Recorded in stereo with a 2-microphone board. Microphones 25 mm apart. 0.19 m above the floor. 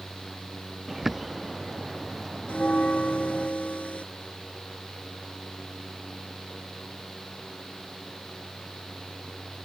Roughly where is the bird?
Centre.